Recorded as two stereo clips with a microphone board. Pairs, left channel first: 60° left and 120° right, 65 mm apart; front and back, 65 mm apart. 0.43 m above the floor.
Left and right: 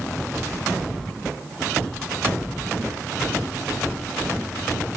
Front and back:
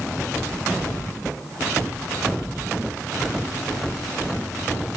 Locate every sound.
0.5 s whispering: 45° left, 1.6 m